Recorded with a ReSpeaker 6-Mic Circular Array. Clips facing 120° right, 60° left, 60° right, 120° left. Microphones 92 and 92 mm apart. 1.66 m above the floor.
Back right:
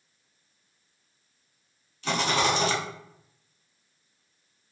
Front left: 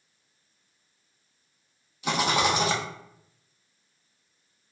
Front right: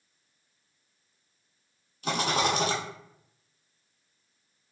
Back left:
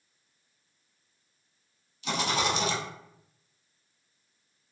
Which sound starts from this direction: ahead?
A rattle, at 2.0 s.